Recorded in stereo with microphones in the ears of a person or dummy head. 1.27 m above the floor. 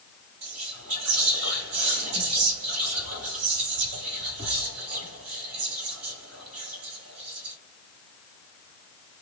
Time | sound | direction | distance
0.4 | whispering | 75° right (ahead or behind) | 1.9 m